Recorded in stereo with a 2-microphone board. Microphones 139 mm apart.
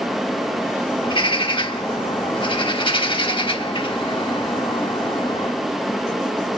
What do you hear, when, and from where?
1.0 s a bird: 40° left (ahead or behind), 1.0 m